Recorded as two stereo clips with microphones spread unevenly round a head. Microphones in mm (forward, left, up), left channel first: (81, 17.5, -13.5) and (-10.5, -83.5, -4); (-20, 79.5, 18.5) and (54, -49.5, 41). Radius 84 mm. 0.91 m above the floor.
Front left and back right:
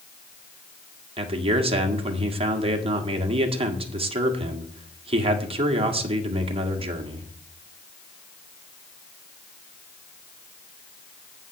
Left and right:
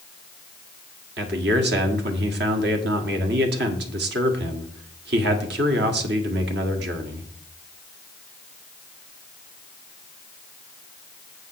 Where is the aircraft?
No aircraft in this recording.